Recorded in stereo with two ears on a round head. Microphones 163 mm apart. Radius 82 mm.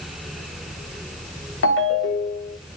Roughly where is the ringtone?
Left.